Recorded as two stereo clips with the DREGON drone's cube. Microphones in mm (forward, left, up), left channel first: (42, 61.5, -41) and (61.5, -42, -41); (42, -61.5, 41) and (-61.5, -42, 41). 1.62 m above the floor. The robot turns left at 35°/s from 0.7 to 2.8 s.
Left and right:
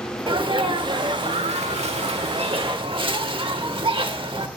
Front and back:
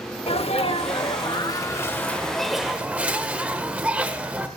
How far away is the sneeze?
About 0.9 m.